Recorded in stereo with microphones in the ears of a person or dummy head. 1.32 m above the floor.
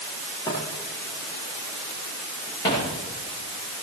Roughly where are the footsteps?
Left.